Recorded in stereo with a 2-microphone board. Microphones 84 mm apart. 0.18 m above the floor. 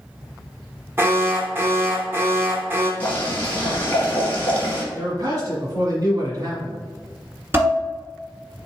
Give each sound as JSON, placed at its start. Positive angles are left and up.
{"t": 1.0, "sound": "an alarm", "side_deg": -25, "distance_m": 0.9}
{"t": 3.0, "sound": "boiling", "side_deg": 15, "distance_m": 1.3}
{"t": 4.9, "sound": "a man speaking", "side_deg": -45, "distance_m": 1.5}
{"t": 7.5, "sound": "dishes clattering", "side_deg": -25, "distance_m": 1.5}